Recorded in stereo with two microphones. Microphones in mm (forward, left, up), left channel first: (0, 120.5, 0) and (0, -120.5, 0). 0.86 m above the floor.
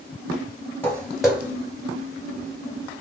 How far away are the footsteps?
About 1.2 m.